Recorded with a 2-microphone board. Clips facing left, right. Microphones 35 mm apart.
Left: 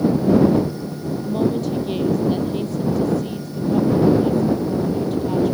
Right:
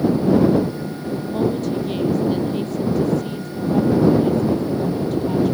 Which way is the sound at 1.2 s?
Centre (ahead or behind).